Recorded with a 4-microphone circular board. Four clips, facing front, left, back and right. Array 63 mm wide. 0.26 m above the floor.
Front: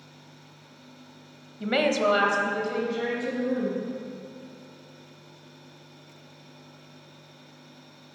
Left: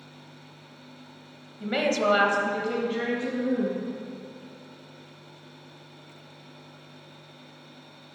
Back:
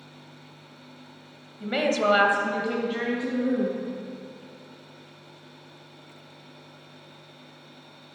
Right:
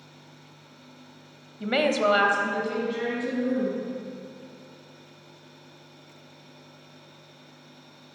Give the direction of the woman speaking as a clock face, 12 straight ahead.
1 o'clock.